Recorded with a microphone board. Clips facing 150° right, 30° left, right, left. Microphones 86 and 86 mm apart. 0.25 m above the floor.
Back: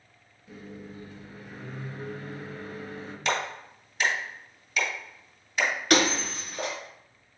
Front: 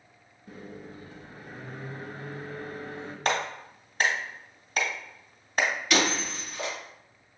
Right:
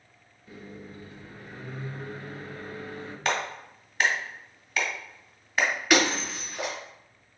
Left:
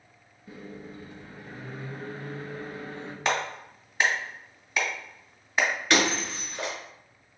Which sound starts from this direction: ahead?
A clap, at 3.2 s.